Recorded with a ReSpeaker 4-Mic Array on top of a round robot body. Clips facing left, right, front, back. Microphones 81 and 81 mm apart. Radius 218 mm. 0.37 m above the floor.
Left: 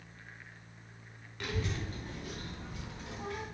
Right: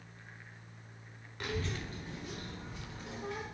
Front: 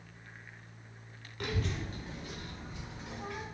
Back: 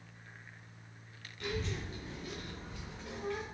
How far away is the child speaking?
About 0.8 m.